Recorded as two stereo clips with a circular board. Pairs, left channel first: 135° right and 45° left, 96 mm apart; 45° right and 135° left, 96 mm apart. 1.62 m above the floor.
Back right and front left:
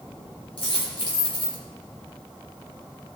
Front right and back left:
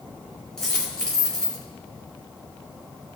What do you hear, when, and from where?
0.6 s a dropped coin: 130° right, 3.5 m